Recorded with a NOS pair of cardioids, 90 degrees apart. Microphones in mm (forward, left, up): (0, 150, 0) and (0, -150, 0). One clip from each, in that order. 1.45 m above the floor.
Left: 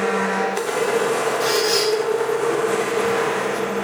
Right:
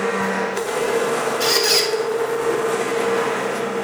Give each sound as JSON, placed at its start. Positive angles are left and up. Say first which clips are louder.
{"t": 0.0, "sound": "a machine running", "louder": "left 1 dB", "azimuth_deg": 5, "distance_m": 1.4}
{"t": 1.4, "sound": "a squeak", "louder": "right 4 dB", "azimuth_deg": -55, "distance_m": 3.5}